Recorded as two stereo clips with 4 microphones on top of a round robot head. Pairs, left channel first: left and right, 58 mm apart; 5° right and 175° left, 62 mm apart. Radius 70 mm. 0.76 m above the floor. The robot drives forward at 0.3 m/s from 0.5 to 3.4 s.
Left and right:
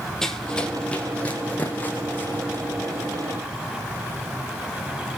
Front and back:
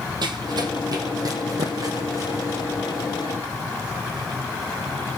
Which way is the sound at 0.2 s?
175° left.